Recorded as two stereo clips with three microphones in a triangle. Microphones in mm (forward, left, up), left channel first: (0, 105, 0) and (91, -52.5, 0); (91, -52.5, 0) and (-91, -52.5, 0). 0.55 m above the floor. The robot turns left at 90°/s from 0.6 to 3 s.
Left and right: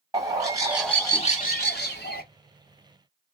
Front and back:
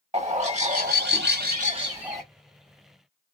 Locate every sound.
0.1 s a bird: 130° right, 1.6 m; by 2.2 s 85° left, 1.6 m